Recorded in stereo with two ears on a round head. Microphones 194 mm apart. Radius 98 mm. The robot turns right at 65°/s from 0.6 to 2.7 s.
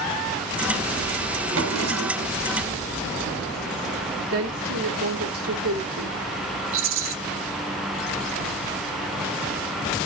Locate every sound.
1.5 s a drawer: 110° right, 3.5 m; by 2.4 s 60° right, 3.5 m
4.3 s a woman speaking: 70° right (ahead or behind), 2.5 m
6.7 s a rattle: 65° right (ahead or behind), 1.0 m